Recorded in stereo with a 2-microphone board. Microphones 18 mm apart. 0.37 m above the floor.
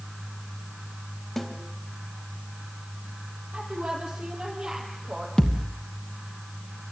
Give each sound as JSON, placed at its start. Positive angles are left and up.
{"t": 1.4, "sound": "a snare drum", "side_deg": 5, "distance_m": 2.5}
{"t": 3.5, "sound": "a woman speaking", "side_deg": -80, "distance_m": 9.0}
{"t": 5.4, "sound": "a thud", "side_deg": 55, "distance_m": 2.5}